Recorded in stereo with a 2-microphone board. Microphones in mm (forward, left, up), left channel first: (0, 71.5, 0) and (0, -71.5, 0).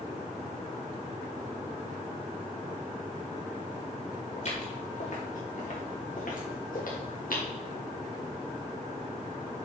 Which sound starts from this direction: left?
Footsteps, at 4.4 s.